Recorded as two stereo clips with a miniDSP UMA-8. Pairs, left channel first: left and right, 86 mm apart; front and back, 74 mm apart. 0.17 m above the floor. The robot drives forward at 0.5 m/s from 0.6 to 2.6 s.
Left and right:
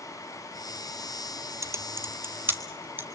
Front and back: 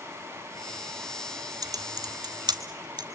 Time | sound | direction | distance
1.6 | typing on a keyboard | 145° right | 1.2 m